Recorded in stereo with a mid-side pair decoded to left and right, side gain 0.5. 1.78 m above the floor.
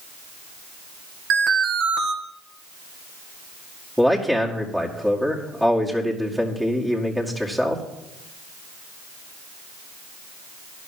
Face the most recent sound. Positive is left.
turn(degrees=0)